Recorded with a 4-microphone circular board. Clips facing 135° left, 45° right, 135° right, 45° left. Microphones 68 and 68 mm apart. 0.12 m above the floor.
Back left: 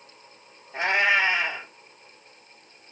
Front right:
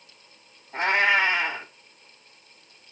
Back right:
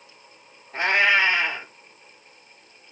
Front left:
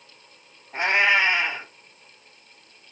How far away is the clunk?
No clunk in this recording.